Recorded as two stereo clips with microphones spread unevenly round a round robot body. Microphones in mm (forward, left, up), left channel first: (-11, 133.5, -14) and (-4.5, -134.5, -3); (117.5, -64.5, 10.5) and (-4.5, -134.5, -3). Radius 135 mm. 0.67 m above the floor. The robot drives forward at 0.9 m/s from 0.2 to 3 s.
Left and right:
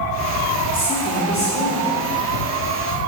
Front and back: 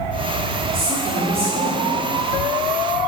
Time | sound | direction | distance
0.7 | a woman speaking | 140° left | 1.6 m